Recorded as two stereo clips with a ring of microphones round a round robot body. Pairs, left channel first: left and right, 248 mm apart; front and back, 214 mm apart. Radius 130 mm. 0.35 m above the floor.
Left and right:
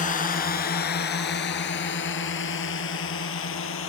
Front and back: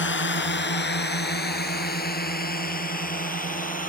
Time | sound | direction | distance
0.0 | a drone | 30° left | ?